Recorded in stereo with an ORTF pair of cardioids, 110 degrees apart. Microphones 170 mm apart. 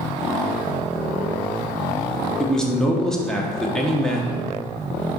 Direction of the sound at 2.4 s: 5° left.